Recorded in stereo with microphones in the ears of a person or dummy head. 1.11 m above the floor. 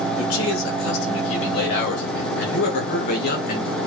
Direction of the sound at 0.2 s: 80° left.